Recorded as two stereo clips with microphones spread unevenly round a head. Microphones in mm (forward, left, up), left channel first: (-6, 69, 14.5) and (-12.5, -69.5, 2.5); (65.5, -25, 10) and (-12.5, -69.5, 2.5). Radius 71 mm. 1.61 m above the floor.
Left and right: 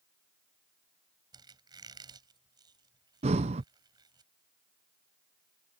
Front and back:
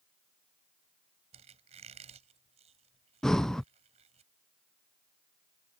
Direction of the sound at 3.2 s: 50° right.